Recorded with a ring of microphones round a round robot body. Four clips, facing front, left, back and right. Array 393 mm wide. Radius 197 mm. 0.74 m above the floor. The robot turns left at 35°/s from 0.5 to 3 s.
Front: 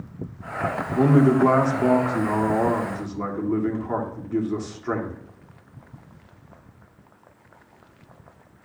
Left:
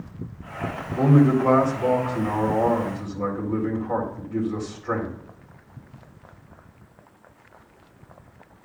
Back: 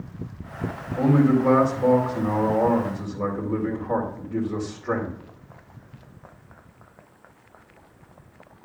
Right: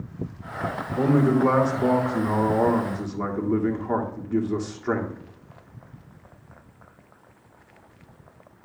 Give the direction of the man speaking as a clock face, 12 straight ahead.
12 o'clock.